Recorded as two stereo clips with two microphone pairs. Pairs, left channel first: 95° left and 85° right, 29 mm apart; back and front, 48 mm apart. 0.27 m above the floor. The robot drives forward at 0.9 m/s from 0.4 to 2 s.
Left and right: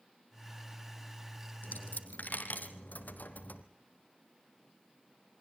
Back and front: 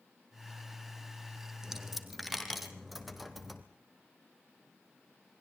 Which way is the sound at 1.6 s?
85° left.